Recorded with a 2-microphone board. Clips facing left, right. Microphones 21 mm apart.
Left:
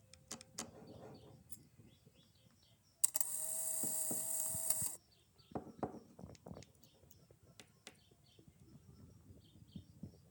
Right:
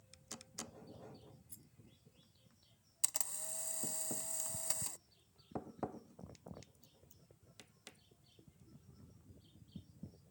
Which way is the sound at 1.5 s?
5° left (ahead or behind).